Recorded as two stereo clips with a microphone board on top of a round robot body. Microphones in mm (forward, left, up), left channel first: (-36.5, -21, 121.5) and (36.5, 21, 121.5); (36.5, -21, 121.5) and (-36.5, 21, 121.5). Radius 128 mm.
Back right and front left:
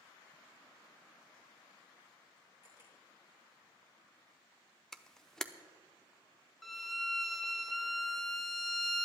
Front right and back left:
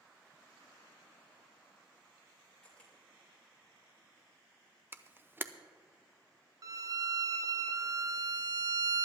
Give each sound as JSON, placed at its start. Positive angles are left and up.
{"t": 2.6, "sound": "a camera shutter", "azimuth_deg": -105, "distance_m": 4.0}
{"t": 4.9, "sound": "a camera shutter", "azimuth_deg": 135, "distance_m": 0.9}
{"t": 6.6, "sound": "a violin", "azimuth_deg": 120, "distance_m": 0.7}